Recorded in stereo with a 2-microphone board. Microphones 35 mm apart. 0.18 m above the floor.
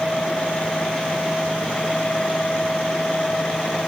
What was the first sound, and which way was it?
Only background noise.